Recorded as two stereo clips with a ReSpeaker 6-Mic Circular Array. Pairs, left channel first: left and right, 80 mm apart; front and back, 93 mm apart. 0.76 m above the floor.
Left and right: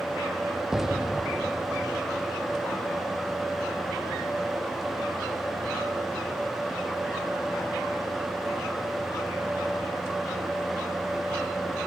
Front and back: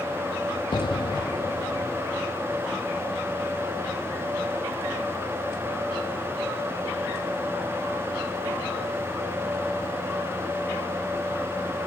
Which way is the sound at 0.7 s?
10° right.